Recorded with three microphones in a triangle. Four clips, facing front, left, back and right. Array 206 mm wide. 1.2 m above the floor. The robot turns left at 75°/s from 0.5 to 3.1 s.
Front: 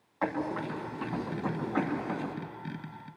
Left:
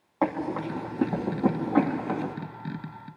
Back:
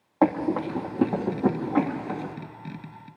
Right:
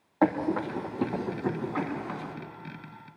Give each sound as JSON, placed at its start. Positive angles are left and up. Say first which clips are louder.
{"t": 0.2, "sound": "running footsteps", "louder": "right 2 dB, back 9 dB", "azimuth_deg": -170, "distance_m": 3.0}